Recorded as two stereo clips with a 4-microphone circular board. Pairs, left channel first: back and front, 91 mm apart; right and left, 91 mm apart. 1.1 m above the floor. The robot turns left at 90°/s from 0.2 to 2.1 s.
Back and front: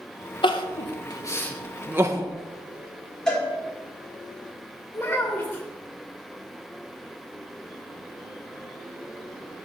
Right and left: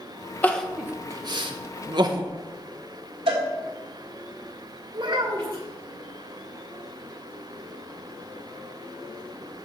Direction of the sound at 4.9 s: 115° left.